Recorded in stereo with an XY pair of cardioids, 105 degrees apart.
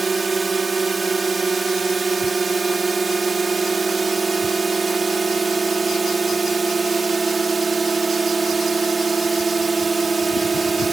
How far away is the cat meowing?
I don't hear a cat meowing.